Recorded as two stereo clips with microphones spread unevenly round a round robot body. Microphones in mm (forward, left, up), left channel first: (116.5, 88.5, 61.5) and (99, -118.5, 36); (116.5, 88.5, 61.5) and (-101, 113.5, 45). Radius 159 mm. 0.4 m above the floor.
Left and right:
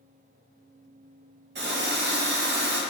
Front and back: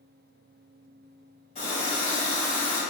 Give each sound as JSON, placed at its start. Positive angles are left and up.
{"t": 1.6, "sound": "a running tap", "azimuth_deg": -70, "distance_m": 1.2}